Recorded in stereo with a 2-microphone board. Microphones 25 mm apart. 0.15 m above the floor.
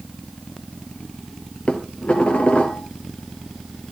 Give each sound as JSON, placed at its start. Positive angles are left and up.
{"t": 1.7, "sound": "dishes clattering", "side_deg": 55, "distance_m": 2.0}